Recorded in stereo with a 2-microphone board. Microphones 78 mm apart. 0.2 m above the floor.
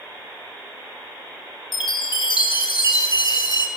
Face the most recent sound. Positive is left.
turn(degrees=60)  # may be behind; listen again after turning